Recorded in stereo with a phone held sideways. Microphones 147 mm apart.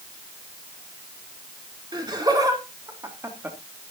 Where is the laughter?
30° right (ahead or behind), 4 m; by 3.6 s 15° right (ahead or behind), 2.5 m.